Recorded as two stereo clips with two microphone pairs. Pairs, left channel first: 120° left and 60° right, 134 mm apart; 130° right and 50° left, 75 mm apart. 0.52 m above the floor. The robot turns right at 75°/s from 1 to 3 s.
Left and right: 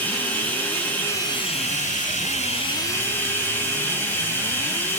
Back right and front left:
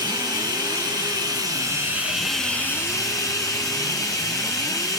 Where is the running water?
40° left, 3 m; by 5.0 s 170° right, 3 m.